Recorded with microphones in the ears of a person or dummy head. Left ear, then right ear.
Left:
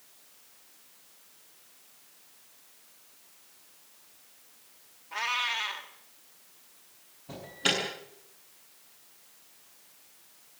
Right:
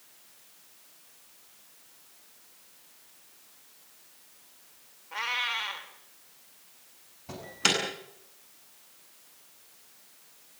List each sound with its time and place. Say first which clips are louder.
5.1 s a cat meowing: even; 5° right (ahead or behind), 2.5 m
7.3 s an alarm: right 2 dB; 65° right (ahead or behind), 9 m